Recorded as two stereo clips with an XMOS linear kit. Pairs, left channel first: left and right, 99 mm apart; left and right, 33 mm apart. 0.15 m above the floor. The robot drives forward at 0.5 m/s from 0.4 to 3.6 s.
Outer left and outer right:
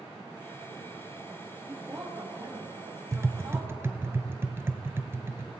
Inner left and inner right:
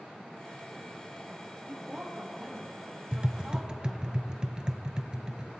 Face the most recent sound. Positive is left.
turn(degrees=-25)  # may be behind; listen again after turning